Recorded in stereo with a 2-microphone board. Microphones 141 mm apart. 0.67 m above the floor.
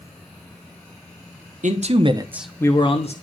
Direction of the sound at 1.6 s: 55° right (ahead or behind).